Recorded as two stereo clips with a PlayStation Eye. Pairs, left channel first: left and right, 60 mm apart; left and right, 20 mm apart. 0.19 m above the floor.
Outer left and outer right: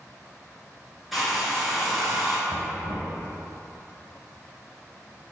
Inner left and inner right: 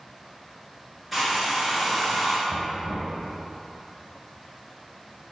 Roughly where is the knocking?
Right.